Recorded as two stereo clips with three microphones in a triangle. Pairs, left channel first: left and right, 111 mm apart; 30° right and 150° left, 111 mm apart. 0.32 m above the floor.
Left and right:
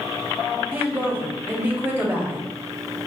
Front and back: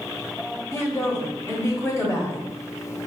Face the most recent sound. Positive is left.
turn(degrees=-40)